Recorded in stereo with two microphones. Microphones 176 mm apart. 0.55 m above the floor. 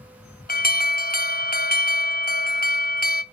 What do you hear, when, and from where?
0.5 s an alarm: 55° left (ahead or behind), 0.5 m